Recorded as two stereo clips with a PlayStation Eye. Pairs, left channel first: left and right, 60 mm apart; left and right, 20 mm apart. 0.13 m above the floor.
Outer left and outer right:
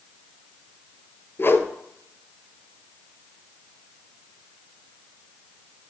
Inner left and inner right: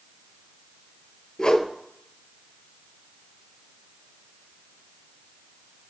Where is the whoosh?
45° left (ahead or behind), 0.6 m.